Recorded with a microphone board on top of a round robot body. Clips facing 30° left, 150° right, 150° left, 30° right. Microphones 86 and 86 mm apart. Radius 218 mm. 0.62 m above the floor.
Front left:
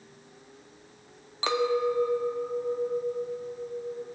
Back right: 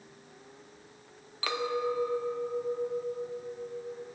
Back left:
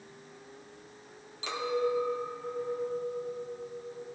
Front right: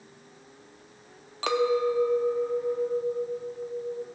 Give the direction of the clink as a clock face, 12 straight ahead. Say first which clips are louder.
Front left 5 dB, front right 7 dB; 1 o'clock.